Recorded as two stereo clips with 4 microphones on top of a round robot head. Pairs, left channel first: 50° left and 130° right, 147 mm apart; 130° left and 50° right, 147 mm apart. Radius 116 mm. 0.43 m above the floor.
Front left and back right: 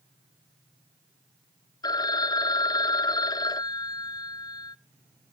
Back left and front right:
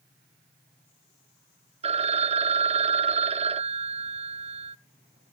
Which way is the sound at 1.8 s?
10° right.